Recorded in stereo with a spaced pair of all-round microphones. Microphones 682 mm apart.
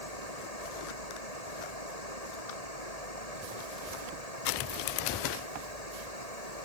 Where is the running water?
65° left (ahead or behind).